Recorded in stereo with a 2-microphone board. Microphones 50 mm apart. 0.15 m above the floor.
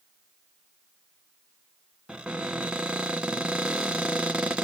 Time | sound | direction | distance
2.1 | a cupboard door | 20° right (ahead or behind) | 1.2 m